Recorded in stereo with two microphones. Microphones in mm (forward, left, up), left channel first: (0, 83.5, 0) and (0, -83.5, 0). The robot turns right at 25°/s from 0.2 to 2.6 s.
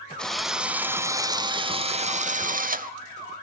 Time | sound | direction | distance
0.2 | a drill | 175° left | 1.1 m